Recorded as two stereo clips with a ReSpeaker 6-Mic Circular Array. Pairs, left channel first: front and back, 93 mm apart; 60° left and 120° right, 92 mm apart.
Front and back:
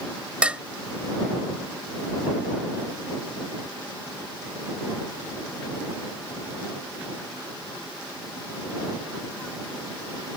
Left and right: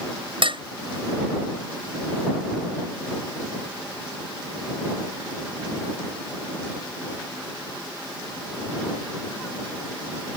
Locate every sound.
0.4 s dishes clattering: 105° right